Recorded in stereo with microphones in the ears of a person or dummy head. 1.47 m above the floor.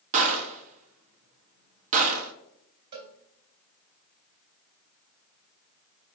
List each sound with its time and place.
0.1 s a gunshot: 45° right (ahead or behind), 0.6 m
2.9 s a cowbell: 45° right (ahead or behind), 0.9 m